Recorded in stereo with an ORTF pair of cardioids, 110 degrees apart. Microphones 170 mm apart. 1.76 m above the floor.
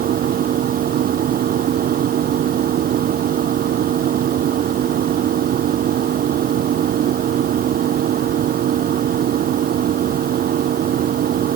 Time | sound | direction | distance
0.0 | a machine running | 60° right | ?